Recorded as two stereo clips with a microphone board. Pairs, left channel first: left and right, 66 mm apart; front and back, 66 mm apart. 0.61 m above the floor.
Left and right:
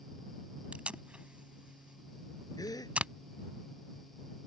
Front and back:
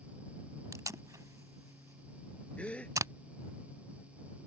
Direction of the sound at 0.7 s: 160° right.